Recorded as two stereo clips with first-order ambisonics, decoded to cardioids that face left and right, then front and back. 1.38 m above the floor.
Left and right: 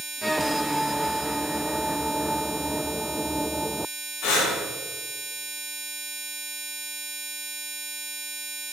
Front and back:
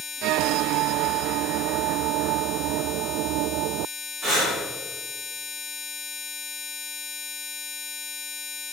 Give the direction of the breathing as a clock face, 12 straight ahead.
9 o'clock.